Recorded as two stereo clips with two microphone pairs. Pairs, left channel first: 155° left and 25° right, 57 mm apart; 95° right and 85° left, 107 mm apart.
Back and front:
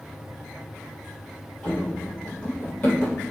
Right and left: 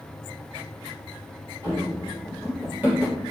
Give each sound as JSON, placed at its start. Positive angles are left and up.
{"t": 1.6, "sound": "running footsteps", "azimuth_deg": 105, "distance_m": 1.6}